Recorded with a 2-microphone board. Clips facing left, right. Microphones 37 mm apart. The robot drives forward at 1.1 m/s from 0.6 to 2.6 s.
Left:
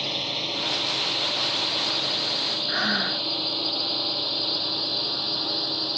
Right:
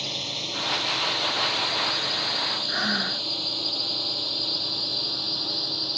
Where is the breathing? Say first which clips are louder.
Left 4 dB; 10° left (ahead or behind).